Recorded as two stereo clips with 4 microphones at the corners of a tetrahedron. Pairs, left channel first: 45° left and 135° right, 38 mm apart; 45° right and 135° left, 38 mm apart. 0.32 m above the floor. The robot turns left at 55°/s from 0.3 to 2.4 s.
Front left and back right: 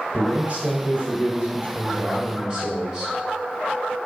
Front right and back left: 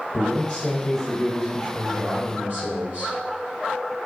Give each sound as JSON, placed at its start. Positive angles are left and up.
{"t": 0.1, "sound": "a man speaking", "azimuth_deg": -85, "distance_m": 1.7}